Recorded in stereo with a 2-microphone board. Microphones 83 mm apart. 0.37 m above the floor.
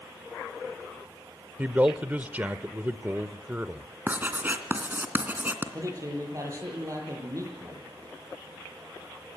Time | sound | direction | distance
1.6 | a man speaking | 20° right (ahead or behind) | 0.9 m
4.1 | writing | 20° right (ahead or behind) | 2.5 m
5.7 | a man speaking | 40° right (ahead or behind) | 9 m